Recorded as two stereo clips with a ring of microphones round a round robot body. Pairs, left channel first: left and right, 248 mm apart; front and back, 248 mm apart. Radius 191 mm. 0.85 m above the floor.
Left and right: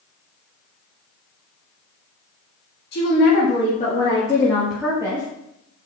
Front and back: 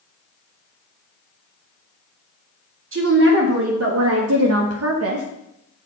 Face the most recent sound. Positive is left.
turn(degrees=-160)